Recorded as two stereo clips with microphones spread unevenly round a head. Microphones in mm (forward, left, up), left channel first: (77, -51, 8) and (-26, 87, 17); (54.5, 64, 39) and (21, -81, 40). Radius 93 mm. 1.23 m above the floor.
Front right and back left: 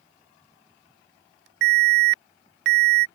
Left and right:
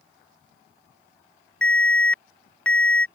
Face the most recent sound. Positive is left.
turn(degrees=160)